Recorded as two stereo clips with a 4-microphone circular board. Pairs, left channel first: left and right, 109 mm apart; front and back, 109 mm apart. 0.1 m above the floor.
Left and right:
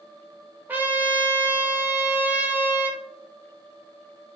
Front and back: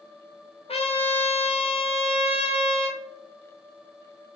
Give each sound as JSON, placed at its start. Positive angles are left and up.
{"t": 0.7, "sound": "a trumpet", "azimuth_deg": -20, "distance_m": 0.6}